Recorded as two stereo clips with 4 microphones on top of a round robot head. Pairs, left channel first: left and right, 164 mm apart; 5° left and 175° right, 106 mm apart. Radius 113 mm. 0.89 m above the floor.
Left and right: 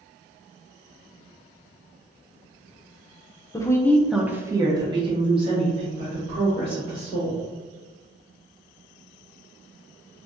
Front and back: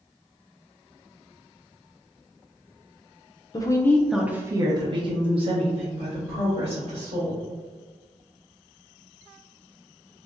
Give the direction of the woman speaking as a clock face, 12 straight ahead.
11 o'clock.